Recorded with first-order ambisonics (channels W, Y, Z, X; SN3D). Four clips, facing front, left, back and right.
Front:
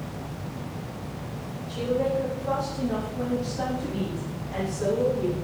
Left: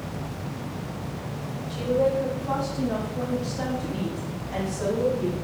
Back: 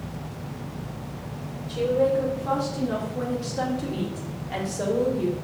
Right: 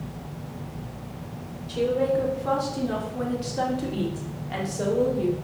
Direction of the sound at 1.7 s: 105° right.